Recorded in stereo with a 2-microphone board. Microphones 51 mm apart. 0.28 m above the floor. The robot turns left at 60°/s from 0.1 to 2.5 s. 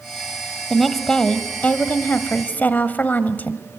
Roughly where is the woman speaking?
Behind.